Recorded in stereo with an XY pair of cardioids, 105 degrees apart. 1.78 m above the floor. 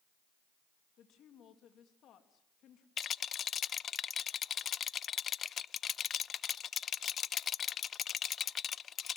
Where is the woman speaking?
70° left, 3 m.